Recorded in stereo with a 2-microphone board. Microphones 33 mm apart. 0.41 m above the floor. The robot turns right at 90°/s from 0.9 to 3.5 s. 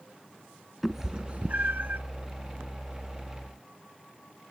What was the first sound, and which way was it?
A cat meowing, 10° right (ahead or behind).